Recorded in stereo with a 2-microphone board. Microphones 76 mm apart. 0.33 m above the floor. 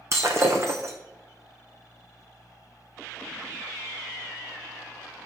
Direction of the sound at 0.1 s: 45° right (ahead or behind).